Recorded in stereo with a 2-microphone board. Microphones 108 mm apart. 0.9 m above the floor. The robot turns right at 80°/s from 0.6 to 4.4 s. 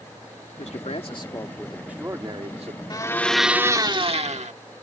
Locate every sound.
0.6 s a man speaking: 90° left; by 2.8 s 95° right
2.9 s a blender: 140° left; by 4.5 s 100° right